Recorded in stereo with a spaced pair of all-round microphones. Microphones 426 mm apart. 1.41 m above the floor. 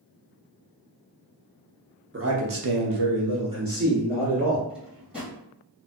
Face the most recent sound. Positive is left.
turn(degrees=-5)  # may be behind; listen again after turning